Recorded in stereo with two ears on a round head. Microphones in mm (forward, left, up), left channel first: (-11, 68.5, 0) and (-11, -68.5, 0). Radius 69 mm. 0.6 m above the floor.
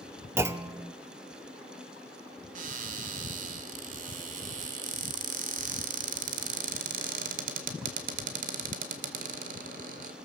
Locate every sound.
0.4 s a clunk: 15° right (ahead or behind), 0.8 m
2.5 s a cupboard door: 50° right (ahead or behind), 2 m